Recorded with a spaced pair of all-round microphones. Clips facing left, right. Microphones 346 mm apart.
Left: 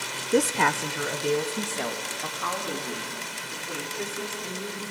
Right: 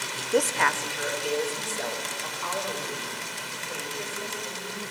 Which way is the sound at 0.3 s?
30° left (ahead or behind).